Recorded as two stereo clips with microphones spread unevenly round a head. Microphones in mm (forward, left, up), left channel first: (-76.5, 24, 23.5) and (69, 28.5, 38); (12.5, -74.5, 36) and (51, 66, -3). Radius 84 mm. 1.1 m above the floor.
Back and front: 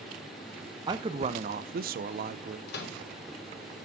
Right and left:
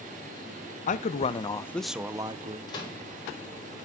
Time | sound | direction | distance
0.9 | a man speaking | 65° right | 0.7 m
2.7 | a microwave | 175° right | 1.4 m